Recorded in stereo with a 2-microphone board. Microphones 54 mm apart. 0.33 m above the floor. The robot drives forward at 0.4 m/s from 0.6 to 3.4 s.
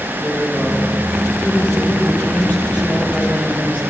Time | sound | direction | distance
0.2 | a woman speaking | 35° left (ahead or behind) | 9 m